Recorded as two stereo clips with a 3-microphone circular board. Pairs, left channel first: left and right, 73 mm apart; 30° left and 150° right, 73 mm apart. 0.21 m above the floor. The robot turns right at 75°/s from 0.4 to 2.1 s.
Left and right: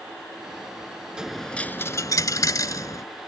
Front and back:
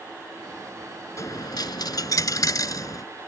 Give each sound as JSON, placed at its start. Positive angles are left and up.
{"t": 1.2, "sound": "a dropped coin", "azimuth_deg": -10}